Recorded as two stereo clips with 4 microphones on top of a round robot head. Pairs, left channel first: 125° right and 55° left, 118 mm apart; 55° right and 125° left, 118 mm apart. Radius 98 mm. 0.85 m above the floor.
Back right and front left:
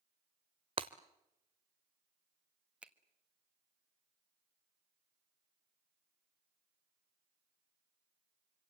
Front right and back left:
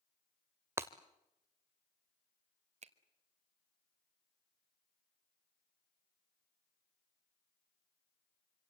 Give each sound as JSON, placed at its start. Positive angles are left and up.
{"t": 0.8, "sound": "breaking glass", "azimuth_deg": 70, "distance_m": 0.6}
{"t": 2.8, "sound": "a finger snap", "azimuth_deg": 135, "distance_m": 1.4}